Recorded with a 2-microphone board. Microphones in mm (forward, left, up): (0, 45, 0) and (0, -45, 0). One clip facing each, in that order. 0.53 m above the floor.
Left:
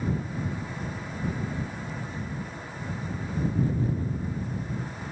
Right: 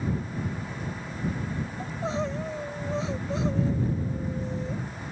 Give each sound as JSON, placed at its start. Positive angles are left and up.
{"t": 1.8, "sound": "crying", "side_deg": -85}